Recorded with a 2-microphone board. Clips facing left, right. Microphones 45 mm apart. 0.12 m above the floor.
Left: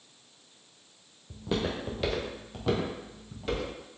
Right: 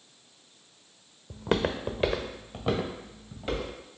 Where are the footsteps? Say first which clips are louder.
Right 4 dB; 65° right (ahead or behind), 0.6 m; by 3.7 s 5° right (ahead or behind), 2 m.